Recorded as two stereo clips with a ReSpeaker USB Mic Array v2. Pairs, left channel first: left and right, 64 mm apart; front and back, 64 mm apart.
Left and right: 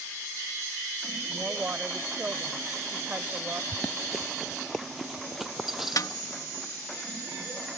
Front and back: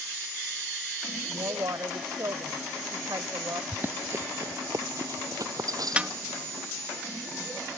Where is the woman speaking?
155° right.